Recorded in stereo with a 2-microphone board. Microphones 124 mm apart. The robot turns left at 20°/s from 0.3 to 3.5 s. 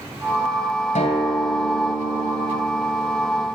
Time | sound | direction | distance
0.9 | a guitar | 75° left | 3 m